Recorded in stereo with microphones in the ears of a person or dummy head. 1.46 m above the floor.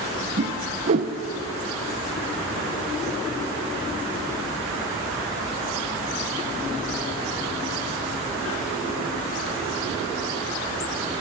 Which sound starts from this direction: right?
A whoosh, at 0.4 s.